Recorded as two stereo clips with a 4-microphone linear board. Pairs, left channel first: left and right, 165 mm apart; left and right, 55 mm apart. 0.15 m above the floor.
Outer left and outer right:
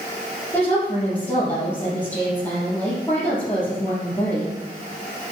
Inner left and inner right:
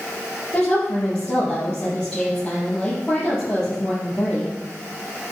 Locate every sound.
0.5 s a woman speaking: 20° left (ahead or behind), 4 m